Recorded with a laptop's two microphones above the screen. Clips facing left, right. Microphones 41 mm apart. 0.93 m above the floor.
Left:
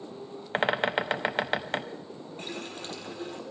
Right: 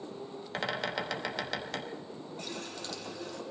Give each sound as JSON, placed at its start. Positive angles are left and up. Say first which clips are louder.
{"t": 0.5, "sound": "a bird", "louder": "left 8 dB", "side_deg": 35, "distance_m": 0.9}
{"t": 2.4, "sound": "a running tap", "louder": "left 4 dB", "side_deg": 45, "distance_m": 1.7}